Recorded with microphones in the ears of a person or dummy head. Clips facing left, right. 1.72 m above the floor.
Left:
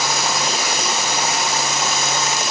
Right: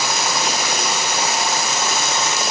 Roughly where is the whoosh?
No whoosh in this recording.